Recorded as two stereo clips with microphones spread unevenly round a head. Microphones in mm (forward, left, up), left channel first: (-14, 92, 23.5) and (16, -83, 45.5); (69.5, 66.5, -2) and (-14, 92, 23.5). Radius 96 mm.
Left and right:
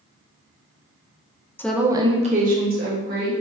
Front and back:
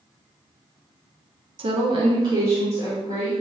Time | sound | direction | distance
1.6 | a woman speaking | 165° left | 0.5 m